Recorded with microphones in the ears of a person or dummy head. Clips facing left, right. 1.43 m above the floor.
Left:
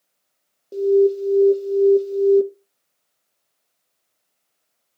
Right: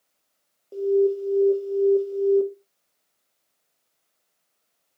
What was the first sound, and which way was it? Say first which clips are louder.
An alarm: left 5 dB; 30° left (ahead or behind).